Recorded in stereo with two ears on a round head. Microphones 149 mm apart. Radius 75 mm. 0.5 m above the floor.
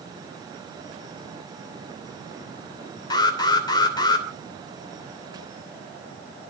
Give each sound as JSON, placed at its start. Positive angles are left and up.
{"t": 3.1, "sound": "an alarm", "side_deg": 25, "distance_m": 2.5}